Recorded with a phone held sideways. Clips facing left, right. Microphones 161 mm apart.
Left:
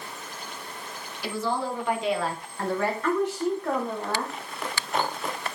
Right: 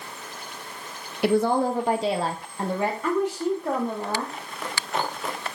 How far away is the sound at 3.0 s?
About 1.3 m.